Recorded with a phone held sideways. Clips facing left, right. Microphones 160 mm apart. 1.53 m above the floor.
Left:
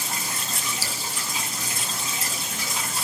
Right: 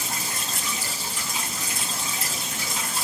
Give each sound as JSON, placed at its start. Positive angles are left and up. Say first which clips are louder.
{"t": 0.8, "sound": "dripping", "louder": "left 1 dB", "side_deg": 85, "distance_m": 2.5}